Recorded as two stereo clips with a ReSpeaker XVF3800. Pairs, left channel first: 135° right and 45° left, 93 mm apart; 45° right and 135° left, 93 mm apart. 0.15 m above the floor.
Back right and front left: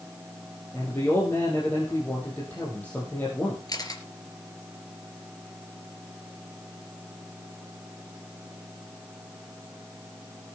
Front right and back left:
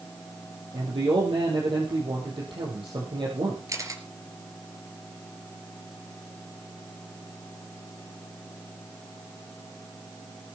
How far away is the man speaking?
About 4 m.